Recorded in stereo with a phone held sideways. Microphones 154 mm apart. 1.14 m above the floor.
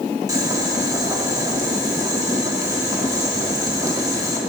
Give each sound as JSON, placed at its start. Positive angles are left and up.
{"t": 0.3, "sound": "boiling", "side_deg": -25, "distance_m": 1.6}